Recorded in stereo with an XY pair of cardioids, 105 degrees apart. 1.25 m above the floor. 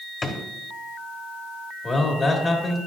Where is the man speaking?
35° left, 1.7 m.